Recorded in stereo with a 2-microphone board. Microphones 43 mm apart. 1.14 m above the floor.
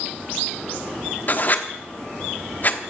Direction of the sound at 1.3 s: 45° left (ahead or behind).